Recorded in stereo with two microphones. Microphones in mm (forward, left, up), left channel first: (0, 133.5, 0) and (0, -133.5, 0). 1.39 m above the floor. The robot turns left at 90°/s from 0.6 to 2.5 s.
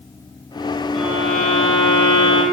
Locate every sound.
0.9 s a violin: 5° left, 0.6 m; by 2.4 s 130° right, 0.6 m